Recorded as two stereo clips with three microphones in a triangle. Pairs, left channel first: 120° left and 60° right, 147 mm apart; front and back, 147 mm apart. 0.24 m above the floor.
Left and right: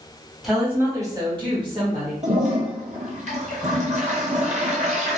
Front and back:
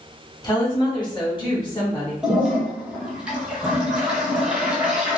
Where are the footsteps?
I don't hear footsteps.